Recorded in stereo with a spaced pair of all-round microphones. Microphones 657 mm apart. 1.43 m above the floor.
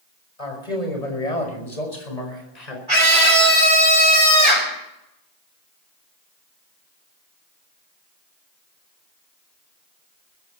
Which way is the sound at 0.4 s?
65° left (ahead or behind).